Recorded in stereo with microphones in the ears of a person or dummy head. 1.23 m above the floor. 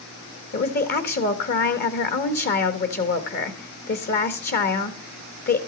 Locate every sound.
0.5 s a woman speaking: 50° left (ahead or behind), 1.2 m